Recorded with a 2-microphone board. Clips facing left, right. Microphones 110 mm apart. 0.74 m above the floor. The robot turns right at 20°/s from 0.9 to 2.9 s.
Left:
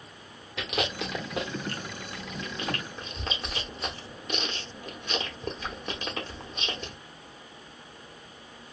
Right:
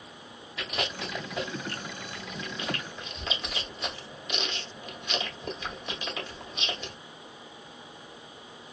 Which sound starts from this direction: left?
Chewing, at 0.6 s.